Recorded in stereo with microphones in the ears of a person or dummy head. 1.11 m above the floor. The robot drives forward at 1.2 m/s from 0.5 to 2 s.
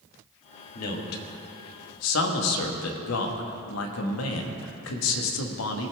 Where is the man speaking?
45° left (ahead or behind), 1.9 m; by 5.9 s 80° left, 1.4 m.